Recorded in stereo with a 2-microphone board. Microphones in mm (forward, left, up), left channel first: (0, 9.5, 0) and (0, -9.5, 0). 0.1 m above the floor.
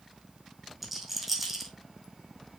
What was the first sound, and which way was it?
A rattle, 10° right (ahead or behind).